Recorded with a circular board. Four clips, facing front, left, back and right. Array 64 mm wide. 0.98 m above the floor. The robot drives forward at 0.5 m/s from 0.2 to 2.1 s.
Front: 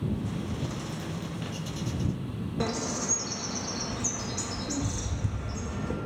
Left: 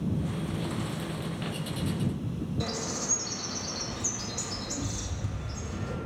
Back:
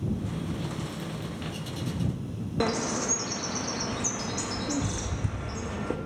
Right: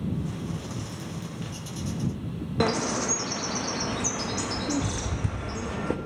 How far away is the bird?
About 0.6 m.